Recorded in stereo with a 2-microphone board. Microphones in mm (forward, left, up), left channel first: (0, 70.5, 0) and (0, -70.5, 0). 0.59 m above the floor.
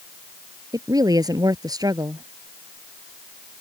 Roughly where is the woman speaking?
Right.